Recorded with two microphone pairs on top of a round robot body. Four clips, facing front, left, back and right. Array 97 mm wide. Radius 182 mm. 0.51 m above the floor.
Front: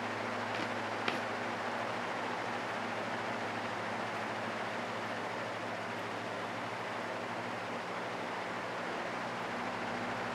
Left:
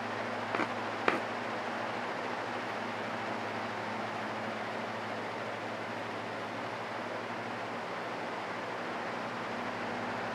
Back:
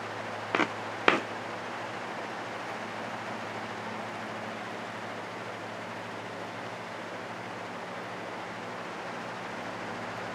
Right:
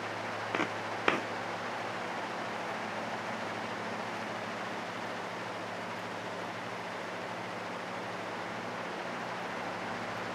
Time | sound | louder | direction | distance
0.5 | footsteps | even, back 6 dB | 175° left | ?